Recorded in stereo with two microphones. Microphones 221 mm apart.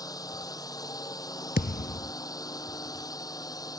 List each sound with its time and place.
0.0 s a drone: 15° left (ahead or behind)
1.6 s a thud: 50° left (ahead or behind)